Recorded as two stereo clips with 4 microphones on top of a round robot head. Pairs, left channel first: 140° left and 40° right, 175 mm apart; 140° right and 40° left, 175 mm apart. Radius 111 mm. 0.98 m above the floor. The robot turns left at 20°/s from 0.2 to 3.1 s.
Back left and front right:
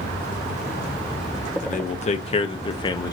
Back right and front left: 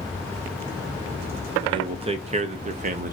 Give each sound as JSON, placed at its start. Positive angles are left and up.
{"t": 1.6, "sound": "a man speaking", "azimuth_deg": 105, "distance_m": 0.6}